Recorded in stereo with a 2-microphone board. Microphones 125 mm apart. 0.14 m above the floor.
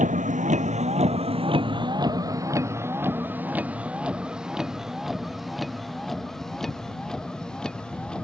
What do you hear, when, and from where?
0.0 s a vehicle: 85° right; by 8.2 s 10° left (ahead or behind)